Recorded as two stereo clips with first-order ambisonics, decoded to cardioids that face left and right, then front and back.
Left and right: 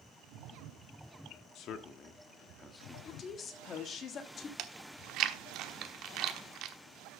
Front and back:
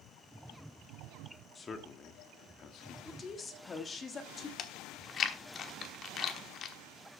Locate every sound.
1.6 s a man speaking: 70° left, 1.1 m; by 3.0 s 5° left, 1.1 m
3.0 s a woman speaking: 55° left, 1.4 m
4.6 s chewing: 55° right, 1.0 m